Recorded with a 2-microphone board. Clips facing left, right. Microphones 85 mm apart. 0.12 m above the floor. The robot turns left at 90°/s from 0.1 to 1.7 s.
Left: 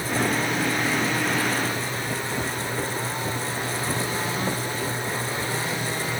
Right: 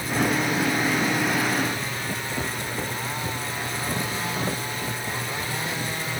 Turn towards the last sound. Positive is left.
No sound to turn to.